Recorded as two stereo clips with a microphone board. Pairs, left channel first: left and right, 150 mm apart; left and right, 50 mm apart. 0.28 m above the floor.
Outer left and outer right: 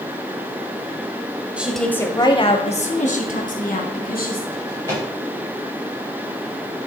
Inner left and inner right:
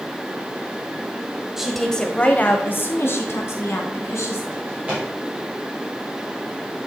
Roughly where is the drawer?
Right.